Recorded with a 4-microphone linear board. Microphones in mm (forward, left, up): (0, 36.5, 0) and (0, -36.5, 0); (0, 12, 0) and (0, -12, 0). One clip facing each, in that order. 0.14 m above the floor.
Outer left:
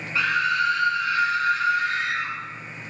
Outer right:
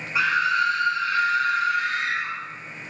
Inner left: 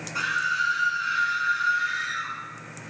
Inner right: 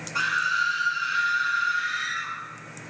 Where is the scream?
15° right (ahead or behind), 1.2 m; by 2.3 s 55° right (ahead or behind), 1.9 m.